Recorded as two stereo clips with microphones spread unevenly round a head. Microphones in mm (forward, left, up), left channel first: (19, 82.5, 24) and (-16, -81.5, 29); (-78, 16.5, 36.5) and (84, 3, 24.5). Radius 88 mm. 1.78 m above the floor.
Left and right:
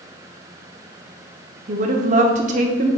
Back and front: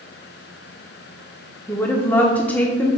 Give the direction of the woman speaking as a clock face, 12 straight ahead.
4 o'clock.